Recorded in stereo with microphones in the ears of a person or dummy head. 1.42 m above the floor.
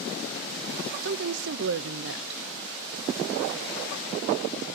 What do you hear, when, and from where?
1.0 s a woman speaking: 60° right (ahead or behind), 0.7 m